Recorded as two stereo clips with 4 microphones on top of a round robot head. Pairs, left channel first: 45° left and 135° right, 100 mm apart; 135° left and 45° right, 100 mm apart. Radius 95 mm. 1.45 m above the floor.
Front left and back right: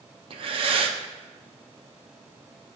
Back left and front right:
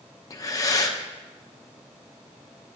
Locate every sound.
0.3 s breathing: 170° right, 0.8 m